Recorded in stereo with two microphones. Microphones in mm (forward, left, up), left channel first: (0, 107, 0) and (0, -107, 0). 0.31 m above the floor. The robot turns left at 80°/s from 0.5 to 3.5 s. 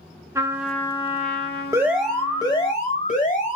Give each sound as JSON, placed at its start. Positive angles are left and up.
{"t": 0.3, "sound": "a trumpet", "azimuth_deg": -165, "distance_m": 0.6}
{"t": 1.7, "sound": "an alarm", "azimuth_deg": -155, "distance_m": 1.0}